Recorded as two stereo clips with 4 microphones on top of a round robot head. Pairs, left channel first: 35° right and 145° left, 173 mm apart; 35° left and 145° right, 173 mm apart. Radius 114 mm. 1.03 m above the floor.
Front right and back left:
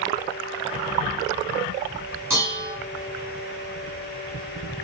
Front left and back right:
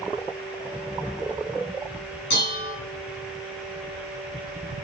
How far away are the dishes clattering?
About 6.5 m.